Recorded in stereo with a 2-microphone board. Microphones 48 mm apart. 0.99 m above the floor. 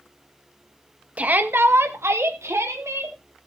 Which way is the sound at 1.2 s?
30° right (ahead or behind).